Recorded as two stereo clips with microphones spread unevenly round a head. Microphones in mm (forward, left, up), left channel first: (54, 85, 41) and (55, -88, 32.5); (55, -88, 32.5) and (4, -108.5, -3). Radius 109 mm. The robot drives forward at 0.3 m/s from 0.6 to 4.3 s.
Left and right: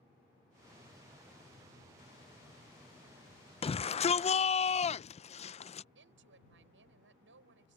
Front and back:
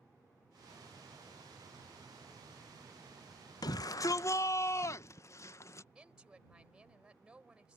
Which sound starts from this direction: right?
A woman speaking, at 6.0 s.